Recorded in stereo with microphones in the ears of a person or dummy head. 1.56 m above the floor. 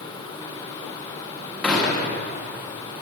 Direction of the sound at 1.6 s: 5° left (ahead or behind).